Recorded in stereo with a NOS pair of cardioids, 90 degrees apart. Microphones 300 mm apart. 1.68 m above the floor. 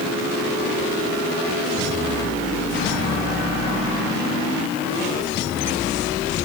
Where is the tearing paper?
No tearing paper in this recording.